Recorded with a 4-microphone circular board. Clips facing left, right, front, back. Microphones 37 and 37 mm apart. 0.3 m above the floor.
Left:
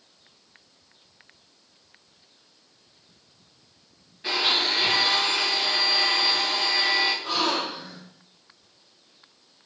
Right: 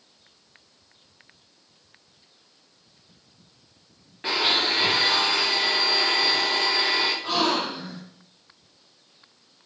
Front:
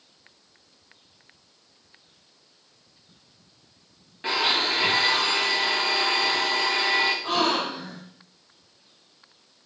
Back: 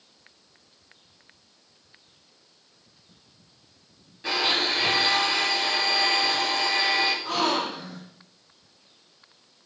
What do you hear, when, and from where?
4.2 s a blender: 50° right, 9 m
7.2 s a gasp: 40° right, 8.5 m